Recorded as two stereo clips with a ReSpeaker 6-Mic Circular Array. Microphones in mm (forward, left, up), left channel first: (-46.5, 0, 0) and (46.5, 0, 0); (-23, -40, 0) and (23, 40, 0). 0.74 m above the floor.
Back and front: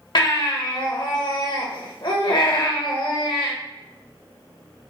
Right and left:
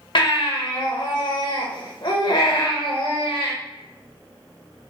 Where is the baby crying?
150° right, 1.0 m.